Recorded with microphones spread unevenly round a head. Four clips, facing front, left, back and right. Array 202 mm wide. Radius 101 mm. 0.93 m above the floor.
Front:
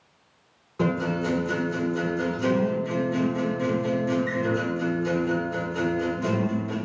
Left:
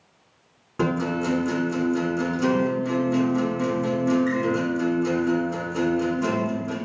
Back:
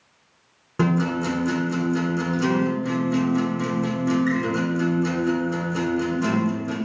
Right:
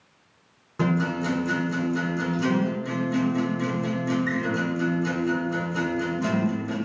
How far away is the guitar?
About 4 m.